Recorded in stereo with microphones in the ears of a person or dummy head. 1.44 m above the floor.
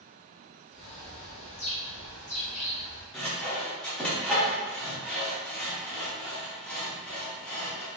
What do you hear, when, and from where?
0.7 s a bird: 40° left (ahead or behind), 0.7 m
3.1 s sawing: 5° left (ahead or behind), 0.7 m